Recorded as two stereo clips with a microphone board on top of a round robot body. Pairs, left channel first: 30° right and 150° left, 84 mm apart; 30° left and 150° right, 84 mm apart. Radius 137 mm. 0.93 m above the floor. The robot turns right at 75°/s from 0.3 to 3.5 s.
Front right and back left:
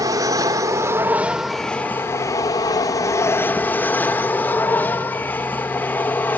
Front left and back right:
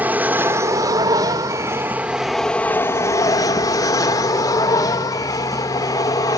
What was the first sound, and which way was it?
An aircraft, 150° left.